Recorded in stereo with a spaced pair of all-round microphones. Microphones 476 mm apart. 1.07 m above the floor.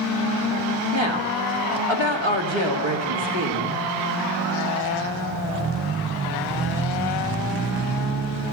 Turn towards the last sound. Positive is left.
turn(degrees=-80)